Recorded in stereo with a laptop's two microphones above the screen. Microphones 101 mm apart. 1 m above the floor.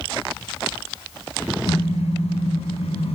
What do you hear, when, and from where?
1.7 s a car horn: 85° left, 4 m